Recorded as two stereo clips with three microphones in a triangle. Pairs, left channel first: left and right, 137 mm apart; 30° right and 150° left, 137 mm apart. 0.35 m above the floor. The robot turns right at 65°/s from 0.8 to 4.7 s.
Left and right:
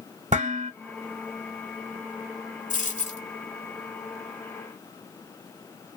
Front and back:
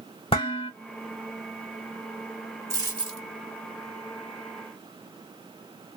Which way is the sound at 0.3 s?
75° right.